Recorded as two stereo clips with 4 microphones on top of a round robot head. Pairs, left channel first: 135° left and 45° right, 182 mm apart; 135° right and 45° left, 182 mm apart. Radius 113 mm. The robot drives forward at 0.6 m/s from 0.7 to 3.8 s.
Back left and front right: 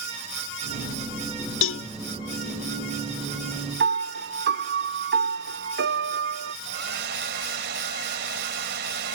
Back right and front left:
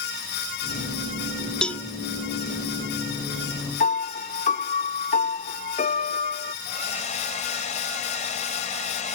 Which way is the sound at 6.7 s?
85° right.